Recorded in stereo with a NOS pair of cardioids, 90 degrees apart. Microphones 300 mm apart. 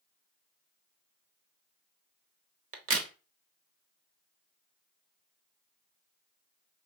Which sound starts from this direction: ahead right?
A crack, at 2.7 s.